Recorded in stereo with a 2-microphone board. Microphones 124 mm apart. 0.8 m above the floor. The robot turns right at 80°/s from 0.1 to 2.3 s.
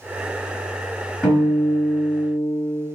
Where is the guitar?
170° left, 1.8 m; by 2.8 s 105° right, 1.8 m.